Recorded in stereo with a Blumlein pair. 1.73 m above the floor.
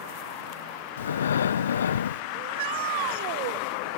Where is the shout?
50° right.